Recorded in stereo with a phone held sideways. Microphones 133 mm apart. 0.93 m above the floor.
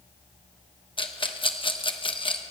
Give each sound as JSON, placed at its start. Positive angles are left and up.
{"t": 1.0, "sound": "a rattle", "side_deg": 40, "distance_m": 0.9}